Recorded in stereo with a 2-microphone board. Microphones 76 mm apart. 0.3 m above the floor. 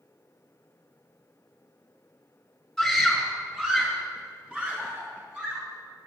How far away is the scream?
About 3.5 m.